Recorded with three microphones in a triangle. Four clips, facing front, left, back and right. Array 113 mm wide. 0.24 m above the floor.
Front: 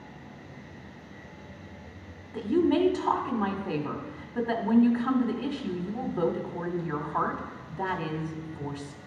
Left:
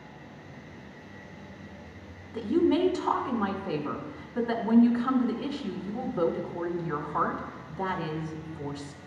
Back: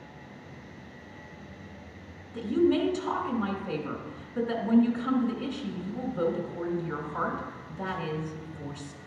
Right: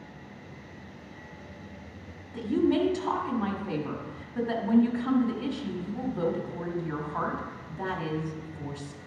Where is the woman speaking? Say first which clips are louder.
Left 1 dB, front 1 dB; 5° left, 1.3 m.